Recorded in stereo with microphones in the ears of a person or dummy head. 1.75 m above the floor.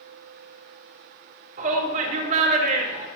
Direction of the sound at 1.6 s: 40° right (ahead or behind).